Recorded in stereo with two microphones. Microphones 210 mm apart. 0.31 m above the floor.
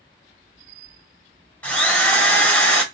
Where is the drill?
5° left (ahead or behind), 1.2 m.